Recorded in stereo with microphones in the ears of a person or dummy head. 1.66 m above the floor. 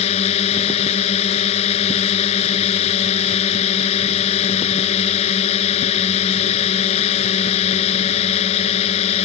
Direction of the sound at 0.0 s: 35° left (ahead or behind).